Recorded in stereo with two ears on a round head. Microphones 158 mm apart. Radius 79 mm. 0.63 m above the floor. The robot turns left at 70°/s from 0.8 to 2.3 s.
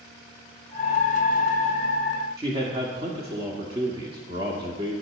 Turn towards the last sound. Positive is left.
turn(degrees=-30)  # may be behind; listen again after turning